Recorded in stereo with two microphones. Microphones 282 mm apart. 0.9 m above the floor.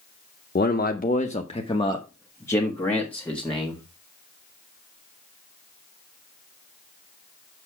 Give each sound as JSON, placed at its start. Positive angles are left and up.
{"t": 0.6, "sound": "a man speaking", "side_deg": 35, "distance_m": 0.7}